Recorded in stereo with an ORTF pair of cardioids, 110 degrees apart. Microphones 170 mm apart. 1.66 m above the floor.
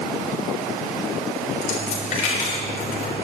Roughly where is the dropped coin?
Ahead left.